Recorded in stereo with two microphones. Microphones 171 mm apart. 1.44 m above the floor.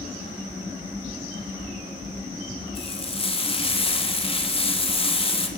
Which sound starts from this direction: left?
Frying, at 2.8 s.